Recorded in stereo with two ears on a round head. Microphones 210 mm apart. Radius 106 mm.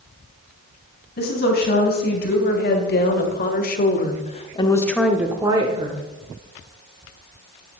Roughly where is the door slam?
No door slam in this recording.